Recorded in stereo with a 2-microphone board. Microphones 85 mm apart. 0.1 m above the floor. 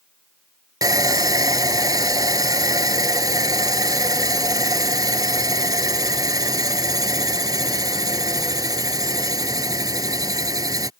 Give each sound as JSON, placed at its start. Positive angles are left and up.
{"t": 0.8, "sound": "sawing", "side_deg": -45}